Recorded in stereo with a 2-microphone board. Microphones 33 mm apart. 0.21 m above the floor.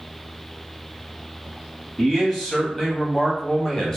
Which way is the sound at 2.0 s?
5° left (ahead or behind).